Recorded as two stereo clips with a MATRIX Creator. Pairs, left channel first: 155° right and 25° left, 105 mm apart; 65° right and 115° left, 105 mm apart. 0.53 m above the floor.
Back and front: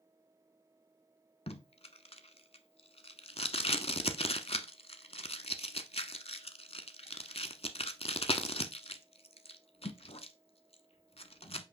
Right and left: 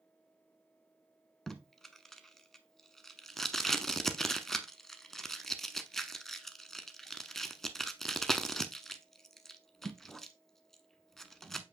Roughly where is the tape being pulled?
Behind right.